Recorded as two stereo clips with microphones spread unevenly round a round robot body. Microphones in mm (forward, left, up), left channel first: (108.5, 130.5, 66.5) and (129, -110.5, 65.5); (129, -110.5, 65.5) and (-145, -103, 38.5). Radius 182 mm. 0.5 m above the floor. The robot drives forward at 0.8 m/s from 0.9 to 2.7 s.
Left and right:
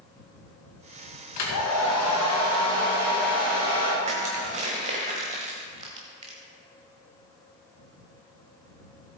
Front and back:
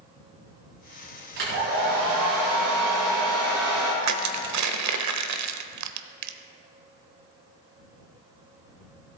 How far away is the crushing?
About 0.8 m.